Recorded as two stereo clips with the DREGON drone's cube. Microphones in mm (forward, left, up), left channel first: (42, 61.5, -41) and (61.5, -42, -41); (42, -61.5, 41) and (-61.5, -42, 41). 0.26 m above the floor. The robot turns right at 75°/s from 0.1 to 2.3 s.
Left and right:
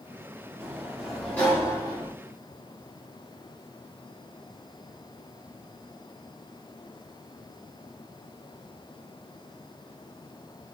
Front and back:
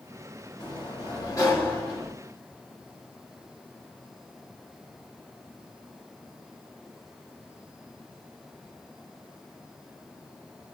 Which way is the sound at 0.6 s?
35° right.